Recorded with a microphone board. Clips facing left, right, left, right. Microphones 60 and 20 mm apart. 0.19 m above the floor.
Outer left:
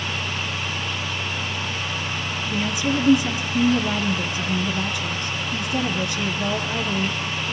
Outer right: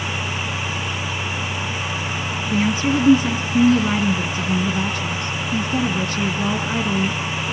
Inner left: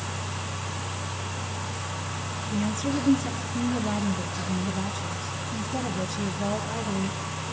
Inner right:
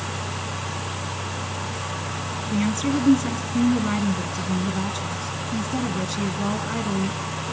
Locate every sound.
2.5 s a woman speaking: 35° right (ahead or behind), 2.5 m